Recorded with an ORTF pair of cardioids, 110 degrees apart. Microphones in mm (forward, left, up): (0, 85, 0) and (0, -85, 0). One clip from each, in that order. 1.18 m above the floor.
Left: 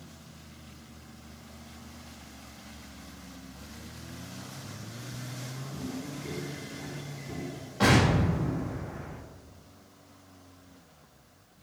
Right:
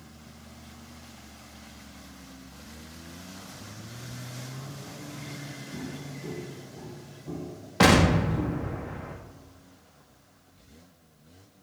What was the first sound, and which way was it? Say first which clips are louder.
Footsteps: left 3 dB; 50° right.